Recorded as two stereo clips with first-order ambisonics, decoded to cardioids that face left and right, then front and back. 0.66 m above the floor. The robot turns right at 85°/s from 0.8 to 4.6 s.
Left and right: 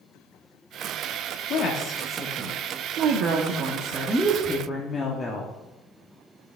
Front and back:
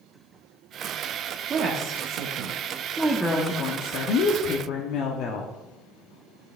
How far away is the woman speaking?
About 0.9 m.